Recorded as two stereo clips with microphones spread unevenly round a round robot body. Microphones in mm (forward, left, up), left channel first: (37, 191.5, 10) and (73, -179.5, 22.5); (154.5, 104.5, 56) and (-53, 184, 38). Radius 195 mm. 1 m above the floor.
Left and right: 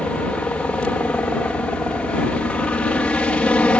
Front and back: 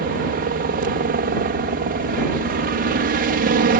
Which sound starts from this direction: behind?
A helicopter, at 0.0 s.